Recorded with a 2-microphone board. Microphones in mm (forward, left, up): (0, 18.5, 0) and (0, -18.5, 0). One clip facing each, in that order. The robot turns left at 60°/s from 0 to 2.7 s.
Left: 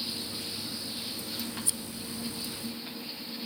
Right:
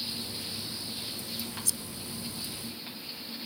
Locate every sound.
1.6 s scissors: 30° left (ahead or behind); by 1.8 s 40° left (ahead or behind)